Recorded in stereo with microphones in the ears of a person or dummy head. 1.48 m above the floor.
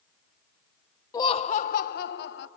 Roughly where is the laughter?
Left.